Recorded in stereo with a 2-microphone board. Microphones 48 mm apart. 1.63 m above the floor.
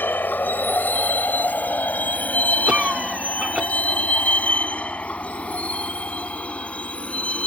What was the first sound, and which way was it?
A vehicle, 50° left (ahead or behind).